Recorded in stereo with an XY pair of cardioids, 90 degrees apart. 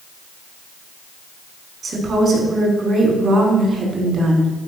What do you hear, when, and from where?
1.8 s a woman speaking: 60° right, 4.5 m